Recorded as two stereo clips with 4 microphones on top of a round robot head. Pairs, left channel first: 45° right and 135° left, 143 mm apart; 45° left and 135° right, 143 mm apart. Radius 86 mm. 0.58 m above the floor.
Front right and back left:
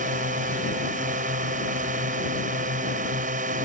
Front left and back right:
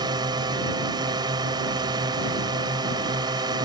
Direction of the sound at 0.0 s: 165° left.